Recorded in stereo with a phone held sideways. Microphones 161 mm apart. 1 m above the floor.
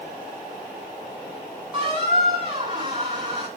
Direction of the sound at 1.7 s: 30° right (ahead or behind).